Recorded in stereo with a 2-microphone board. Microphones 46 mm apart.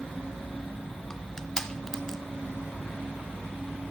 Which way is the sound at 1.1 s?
10° left (ahead or behind).